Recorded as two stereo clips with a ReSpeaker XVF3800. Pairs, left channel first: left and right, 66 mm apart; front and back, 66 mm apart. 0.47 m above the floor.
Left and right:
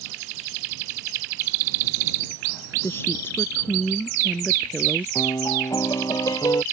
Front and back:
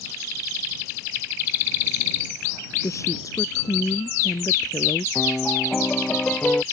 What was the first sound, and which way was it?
A woman speaking, 40° left.